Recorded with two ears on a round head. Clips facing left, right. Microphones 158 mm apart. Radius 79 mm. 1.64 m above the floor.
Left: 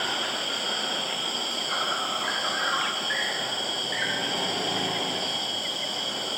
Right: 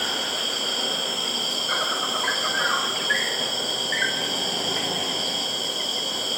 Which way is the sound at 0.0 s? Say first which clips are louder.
Right 1 dB; 65° right (ahead or behind).